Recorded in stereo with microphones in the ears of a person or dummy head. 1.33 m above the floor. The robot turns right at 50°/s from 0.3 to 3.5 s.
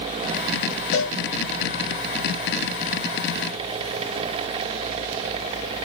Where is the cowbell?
55° left (ahead or behind), 1.3 m; by 2.6 s 35° left (ahead or behind), 1.3 m.